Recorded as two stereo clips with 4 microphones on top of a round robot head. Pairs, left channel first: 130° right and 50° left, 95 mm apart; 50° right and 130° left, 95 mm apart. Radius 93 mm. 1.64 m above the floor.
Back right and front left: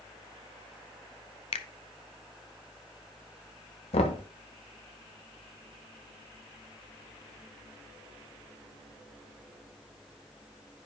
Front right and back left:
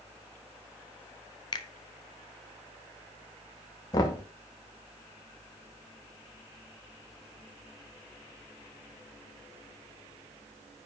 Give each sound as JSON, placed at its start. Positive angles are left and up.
{"t": 1.5, "sound": "a finger snap", "azimuth_deg": -100, "distance_m": 0.6}
{"t": 3.9, "sound": "knocking", "azimuth_deg": -105, "distance_m": 1.1}